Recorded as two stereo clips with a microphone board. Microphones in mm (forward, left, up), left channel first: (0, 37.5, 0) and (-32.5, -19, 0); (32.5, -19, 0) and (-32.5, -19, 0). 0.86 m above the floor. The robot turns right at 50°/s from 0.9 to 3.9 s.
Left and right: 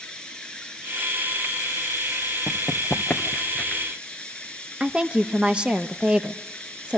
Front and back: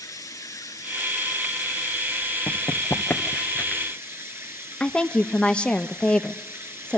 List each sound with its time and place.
0.0 s running water: 15° right, 1.8 m; by 7.0 s 135° left, 1.8 m
2.5 s running footsteps: straight ahead, 1.2 m; by 3.8 s 20° left, 0.8 m
4.8 s a woman speaking: 60° right, 0.7 m